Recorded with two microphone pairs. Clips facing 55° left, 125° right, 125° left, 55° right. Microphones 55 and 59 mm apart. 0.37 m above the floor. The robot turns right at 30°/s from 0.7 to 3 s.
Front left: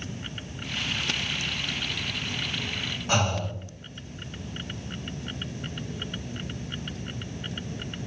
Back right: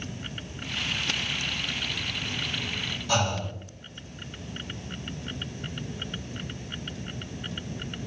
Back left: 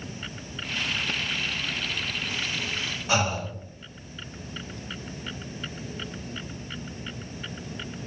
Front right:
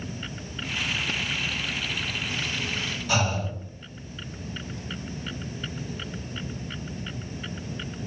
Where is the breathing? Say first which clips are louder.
Front left 1 dB, back left 1 dB; 85° left, 1.2 m.